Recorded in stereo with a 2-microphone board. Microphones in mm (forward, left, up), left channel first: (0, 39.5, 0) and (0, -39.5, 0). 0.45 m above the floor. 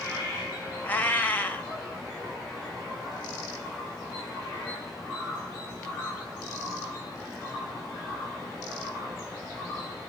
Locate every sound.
0.8 s a cat meowing: 20° left (ahead or behind), 1.2 m